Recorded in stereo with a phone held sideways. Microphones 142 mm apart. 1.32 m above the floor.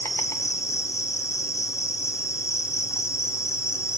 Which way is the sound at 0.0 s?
20° left (ahead or behind).